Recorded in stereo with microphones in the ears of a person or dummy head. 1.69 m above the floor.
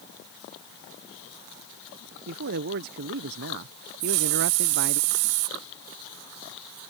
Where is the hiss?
75° right (ahead or behind).